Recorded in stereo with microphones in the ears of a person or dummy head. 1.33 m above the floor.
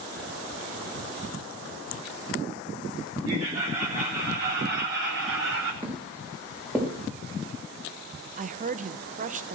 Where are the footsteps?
15° right (ahead or behind), 4.5 m; by 6.9 s 5° right (ahead or behind), 4.5 m.